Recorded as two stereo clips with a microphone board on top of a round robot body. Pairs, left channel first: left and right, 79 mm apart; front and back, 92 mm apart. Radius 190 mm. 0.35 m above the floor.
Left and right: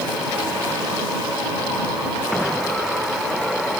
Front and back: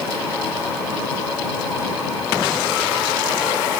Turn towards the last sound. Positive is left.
No sound to turn to.